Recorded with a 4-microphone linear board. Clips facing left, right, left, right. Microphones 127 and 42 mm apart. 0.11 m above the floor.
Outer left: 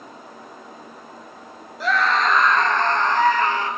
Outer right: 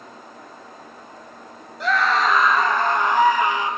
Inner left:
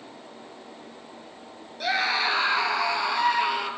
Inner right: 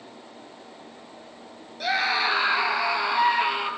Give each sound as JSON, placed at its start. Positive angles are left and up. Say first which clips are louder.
{"t": 1.8, "sound": "a scream", "louder": "even, inner right 1 dB", "side_deg": 0, "distance_m": 2.0}